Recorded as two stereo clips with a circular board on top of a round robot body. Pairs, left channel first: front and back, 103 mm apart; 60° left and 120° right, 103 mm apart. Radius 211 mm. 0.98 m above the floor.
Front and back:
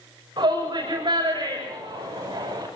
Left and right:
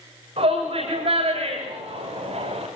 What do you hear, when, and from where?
0.4 s a shout: 135° right, 7 m; by 2.7 s 130° right, 6 m